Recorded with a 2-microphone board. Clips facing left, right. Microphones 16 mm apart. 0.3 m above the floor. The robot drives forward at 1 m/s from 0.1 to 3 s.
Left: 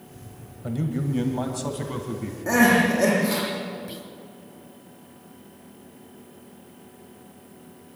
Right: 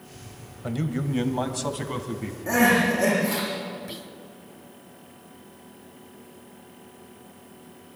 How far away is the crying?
About 7 m.